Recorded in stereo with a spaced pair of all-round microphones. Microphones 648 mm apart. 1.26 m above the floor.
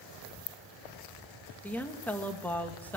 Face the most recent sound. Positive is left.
turn(degrees=5)  # may be behind; listen again after turning